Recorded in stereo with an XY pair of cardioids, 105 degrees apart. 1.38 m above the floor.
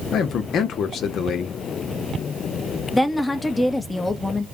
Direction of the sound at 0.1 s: 65° left.